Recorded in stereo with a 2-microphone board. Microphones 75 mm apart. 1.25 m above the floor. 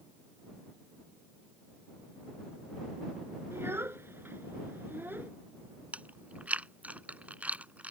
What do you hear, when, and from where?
3.5 s a child speaking: 30° right (ahead or behind); by 5.3 s 25° right (ahead or behind)
5.9 s chewing: 20° right (ahead or behind)